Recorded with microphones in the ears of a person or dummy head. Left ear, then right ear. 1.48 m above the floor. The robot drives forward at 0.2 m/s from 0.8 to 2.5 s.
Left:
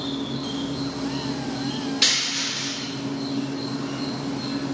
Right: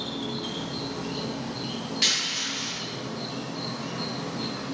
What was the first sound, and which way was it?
An insect, 50° right (ahead or behind).